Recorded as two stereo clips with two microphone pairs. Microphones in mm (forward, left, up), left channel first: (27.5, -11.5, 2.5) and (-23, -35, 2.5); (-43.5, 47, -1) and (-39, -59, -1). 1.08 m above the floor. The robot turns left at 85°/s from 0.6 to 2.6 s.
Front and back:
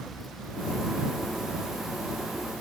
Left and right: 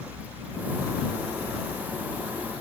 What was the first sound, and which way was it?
Only background noise.